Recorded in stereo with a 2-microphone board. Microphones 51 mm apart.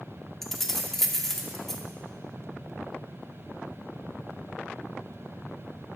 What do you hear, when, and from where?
0.4 s keys jangling: 5° left (ahead or behind), 0.7 m